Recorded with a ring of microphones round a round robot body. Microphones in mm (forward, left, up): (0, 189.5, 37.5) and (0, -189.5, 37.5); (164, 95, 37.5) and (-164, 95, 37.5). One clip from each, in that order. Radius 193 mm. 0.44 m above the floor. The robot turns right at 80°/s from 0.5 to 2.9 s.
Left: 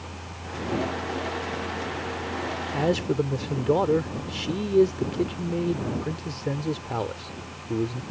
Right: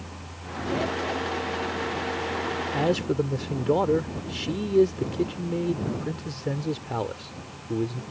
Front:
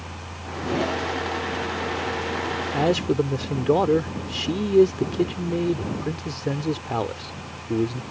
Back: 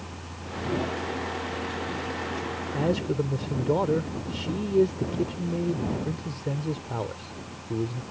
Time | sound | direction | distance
2.7 | a man speaking | 10° right | ?